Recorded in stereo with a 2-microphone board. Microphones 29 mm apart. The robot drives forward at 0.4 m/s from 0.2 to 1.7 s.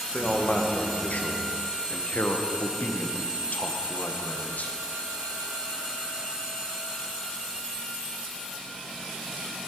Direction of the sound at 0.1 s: 45° left (ahead or behind).